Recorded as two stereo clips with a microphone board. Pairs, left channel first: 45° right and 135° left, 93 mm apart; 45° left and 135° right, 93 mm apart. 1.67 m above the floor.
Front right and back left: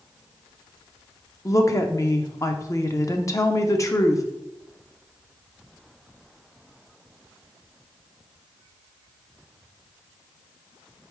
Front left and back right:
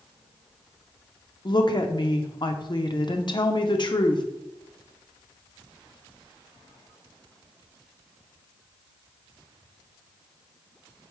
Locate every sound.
1.4 s a woman speaking: 10° left, 0.6 m